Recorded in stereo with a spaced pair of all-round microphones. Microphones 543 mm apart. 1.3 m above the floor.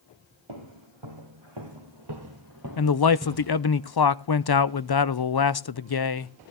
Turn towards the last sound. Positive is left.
turn(degrees=45)  # may be behind; listen again after turning